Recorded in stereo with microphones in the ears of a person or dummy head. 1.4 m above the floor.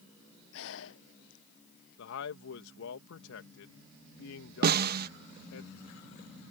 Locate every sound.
0.5 s breathing: 70° left (ahead or behind)
2.0 s a man speaking: 75° left (ahead or behind)
4.6 s a snare drum: 45° right (ahead or behind)